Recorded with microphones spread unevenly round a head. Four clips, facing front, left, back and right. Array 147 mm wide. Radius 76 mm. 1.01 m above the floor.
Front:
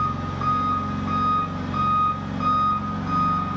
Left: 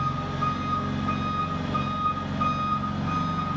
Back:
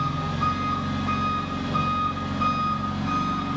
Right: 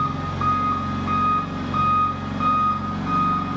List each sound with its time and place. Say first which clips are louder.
0.0 s an engine running: right 4 dB, front 1 dB; 95° right, 0.7 m